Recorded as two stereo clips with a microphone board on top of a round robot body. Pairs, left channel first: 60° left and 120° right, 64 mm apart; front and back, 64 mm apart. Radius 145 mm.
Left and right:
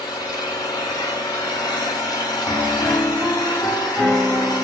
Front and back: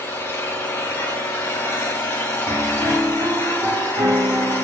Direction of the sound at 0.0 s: 60° left.